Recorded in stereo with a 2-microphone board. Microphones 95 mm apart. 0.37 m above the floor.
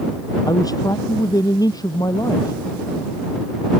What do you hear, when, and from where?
0.5 s a man speaking: 40° left (ahead or behind)